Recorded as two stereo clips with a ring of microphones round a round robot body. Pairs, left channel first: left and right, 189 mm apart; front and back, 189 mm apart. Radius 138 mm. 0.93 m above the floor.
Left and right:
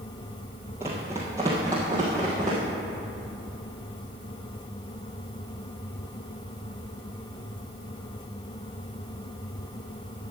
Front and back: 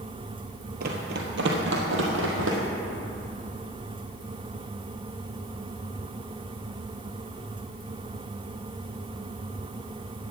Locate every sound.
0.8 s running footsteps: 165° right, 1.2 m; by 2.6 s 170° right, 2 m